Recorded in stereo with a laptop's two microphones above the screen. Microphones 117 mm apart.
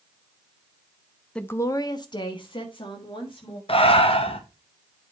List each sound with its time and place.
1.4 s a woman speaking: 5° left (ahead or behind), 0.5 m; by 3.6 s 45° left (ahead or behind), 2.5 m
3.7 s breathing: 55° left (ahead or behind), 1.2 m